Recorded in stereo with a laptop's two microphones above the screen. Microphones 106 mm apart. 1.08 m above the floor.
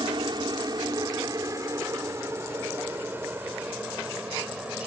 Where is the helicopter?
45° right (ahead or behind); by 4.9 s 10° right (ahead or behind).